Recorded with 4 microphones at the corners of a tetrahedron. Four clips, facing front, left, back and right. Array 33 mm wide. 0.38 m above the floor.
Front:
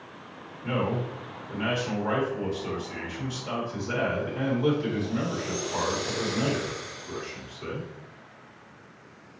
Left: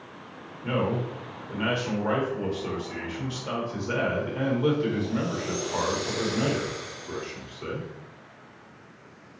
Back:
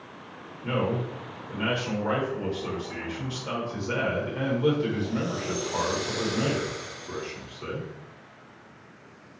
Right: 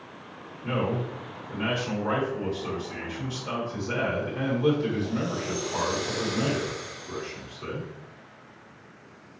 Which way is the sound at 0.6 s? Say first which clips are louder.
Left 1 dB, back 1 dB; 105° left.